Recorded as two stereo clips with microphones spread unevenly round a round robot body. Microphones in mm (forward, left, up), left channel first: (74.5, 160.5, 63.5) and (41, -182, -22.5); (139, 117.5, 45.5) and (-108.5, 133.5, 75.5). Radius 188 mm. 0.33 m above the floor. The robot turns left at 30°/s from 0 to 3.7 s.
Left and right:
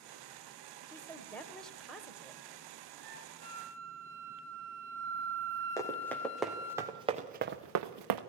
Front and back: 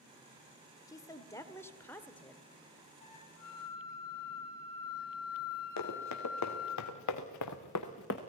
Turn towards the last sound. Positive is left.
turn(degrees=-70)